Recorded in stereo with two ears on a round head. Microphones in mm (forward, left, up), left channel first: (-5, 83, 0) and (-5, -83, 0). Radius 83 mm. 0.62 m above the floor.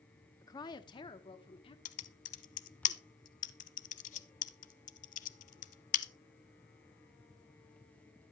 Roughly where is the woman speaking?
Centre.